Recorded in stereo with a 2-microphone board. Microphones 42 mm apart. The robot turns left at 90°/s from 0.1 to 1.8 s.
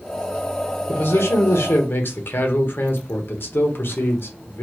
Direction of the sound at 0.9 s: 135° left.